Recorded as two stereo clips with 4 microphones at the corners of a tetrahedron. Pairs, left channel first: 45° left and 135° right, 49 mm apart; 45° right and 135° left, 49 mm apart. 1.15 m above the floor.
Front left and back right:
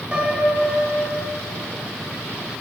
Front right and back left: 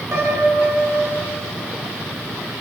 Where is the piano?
160° left, 3 m.